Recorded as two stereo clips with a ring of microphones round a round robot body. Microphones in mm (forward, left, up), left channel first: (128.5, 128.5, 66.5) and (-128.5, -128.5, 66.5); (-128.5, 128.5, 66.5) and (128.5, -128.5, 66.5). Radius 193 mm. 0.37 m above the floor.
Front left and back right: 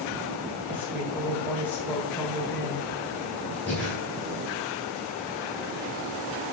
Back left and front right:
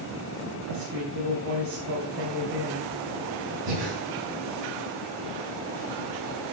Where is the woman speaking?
40° right, 2.5 m.